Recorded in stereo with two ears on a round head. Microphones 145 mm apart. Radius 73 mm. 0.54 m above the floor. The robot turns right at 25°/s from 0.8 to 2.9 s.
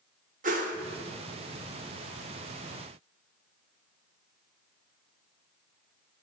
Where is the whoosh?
50° right (ahead or behind), 1.1 m.